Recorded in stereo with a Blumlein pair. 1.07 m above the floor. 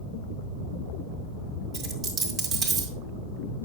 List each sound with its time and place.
1.7 s a dropped coin: 30° right, 2 m